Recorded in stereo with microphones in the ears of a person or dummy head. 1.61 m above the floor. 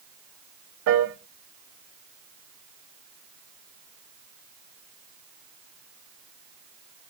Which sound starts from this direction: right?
A piano, at 0.9 s.